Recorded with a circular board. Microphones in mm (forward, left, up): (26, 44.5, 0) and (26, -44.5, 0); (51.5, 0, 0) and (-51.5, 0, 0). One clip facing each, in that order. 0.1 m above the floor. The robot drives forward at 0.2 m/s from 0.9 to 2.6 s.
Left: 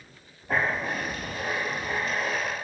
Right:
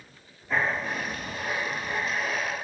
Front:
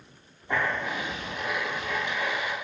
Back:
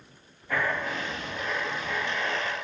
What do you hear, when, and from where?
0.5 s writing: 65° left, 0.6 m; by 2.5 s 100° left, 0.6 m